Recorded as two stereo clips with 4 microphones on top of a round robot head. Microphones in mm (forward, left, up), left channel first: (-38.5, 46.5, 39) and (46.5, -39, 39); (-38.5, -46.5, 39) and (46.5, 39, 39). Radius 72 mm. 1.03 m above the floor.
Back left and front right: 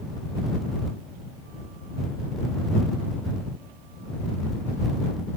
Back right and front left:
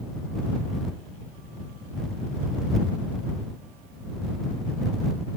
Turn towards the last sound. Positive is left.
No sound to turn to.